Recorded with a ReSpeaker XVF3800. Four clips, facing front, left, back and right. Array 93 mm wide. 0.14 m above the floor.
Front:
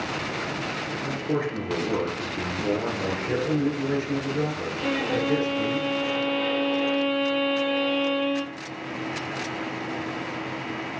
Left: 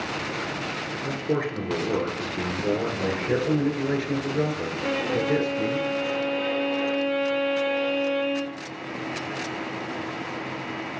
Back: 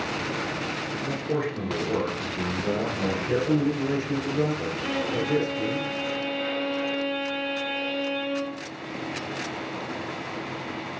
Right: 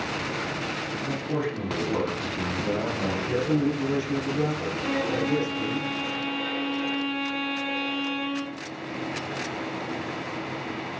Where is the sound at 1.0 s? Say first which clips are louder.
Left 3 dB, front 1 dB; 75° left, 2 m.